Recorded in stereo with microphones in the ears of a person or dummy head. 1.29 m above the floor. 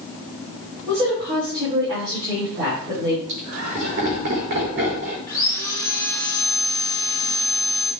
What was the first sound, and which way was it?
A woman speaking, 20° right (ahead or behind).